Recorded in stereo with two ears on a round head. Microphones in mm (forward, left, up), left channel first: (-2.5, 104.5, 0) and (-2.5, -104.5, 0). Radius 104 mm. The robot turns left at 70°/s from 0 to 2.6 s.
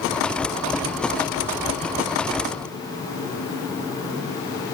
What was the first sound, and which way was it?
Only background noise.